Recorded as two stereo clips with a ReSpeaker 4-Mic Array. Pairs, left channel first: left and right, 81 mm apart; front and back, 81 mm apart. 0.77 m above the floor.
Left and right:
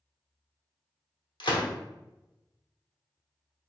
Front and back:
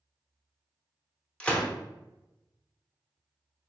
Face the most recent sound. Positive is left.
turn(degrees=75)